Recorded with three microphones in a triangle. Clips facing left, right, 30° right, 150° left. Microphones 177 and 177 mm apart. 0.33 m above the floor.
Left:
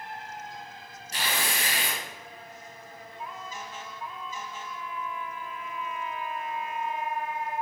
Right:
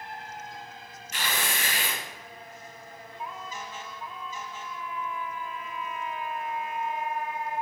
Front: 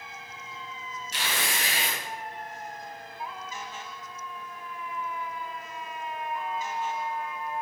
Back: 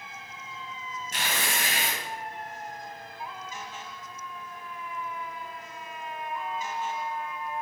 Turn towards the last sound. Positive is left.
turn(degrees=135)